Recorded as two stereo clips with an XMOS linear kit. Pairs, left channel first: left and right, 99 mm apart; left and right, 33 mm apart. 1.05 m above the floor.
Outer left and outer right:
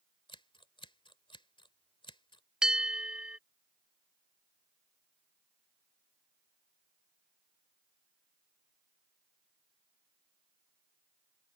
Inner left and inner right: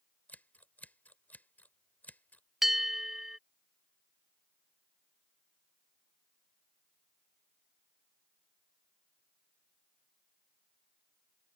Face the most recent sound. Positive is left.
turn(degrees=-10)  # may be behind; listen again after turning